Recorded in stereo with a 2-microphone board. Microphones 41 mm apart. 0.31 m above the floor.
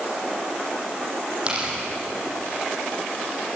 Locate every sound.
1.5 s tearing paper: 30° right (ahead or behind), 8.5 m